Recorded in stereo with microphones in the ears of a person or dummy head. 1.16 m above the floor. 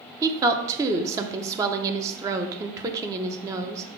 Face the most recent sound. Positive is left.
turn(degrees=-15)  # may be behind; listen again after turning